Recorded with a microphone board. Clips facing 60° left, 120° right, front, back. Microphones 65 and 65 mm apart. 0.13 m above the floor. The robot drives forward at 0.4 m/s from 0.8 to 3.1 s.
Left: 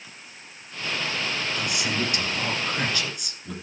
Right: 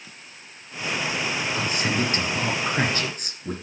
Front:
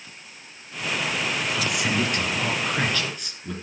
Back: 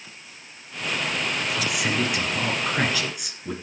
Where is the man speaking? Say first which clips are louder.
Right 4 dB, even; 85° right, 2 m; by 3.5 s 110° right, 2.5 m.